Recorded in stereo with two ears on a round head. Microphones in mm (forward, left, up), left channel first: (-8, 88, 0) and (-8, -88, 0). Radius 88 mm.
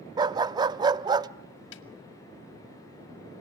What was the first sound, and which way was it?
A dog barking, 20° right (ahead or behind).